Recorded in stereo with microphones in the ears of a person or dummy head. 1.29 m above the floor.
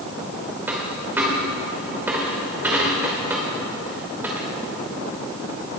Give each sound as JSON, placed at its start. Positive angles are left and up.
{"t": 0.7, "sound": "a dropped coin", "side_deg": -10, "distance_m": 2.5}